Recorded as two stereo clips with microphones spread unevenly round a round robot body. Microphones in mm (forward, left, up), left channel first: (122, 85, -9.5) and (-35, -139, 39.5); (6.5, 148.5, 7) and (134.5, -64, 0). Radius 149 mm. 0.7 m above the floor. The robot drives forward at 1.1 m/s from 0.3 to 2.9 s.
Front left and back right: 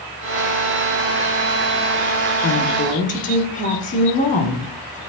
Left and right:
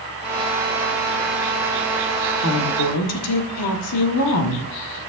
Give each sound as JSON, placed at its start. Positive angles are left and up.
{"t": 2.4, "sound": "a woman speaking", "azimuth_deg": 90, "distance_m": 1.3}